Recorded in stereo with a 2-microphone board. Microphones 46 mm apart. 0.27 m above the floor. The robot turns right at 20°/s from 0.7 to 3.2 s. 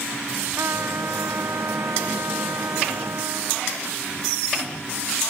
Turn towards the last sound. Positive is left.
turn(degrees=-70)